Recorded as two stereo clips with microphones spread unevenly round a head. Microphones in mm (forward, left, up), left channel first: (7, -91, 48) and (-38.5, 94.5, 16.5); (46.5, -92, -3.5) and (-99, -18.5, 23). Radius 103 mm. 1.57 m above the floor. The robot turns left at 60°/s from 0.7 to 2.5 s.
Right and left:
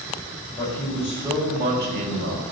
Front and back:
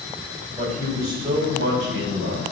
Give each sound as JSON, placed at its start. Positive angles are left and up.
{"t": 0.5, "sound": "a man speaking", "azimuth_deg": -150, "distance_m": 4.0}